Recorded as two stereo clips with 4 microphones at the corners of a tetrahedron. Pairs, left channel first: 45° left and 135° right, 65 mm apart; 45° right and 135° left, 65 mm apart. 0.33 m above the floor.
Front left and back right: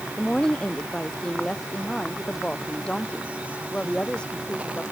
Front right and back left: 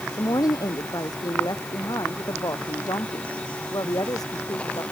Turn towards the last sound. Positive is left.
turn(degrees=-30)